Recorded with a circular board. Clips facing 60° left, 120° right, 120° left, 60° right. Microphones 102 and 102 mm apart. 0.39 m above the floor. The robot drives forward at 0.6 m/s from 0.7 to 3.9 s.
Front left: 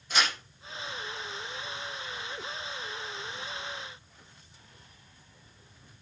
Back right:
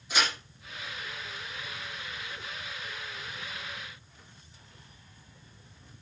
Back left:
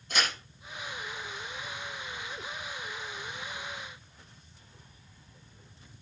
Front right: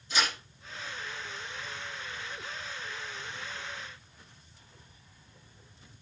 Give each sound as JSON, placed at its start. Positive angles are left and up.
{"t": 0.1, "sound": "tearing paper", "azimuth_deg": 155, "distance_m": 5.5}